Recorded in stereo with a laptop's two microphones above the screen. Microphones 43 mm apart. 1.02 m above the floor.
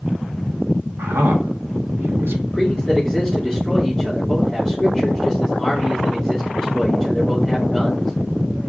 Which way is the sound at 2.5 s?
Centre (ahead or behind).